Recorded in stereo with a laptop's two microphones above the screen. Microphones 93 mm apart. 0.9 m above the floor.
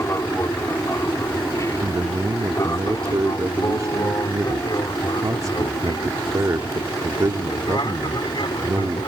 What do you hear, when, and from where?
0.0 s an aircraft: 30° left (ahead or behind); by 9.1 s 55° left (ahead or behind)
1.8 s a man speaking: 35° right (ahead or behind)